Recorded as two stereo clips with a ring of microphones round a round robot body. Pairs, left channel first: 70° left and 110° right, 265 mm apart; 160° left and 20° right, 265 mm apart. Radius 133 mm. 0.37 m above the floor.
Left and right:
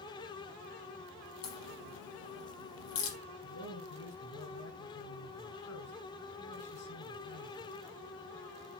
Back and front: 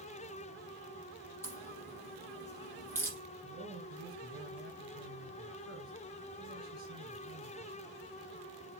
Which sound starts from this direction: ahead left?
A man speaking, at 3.4 s.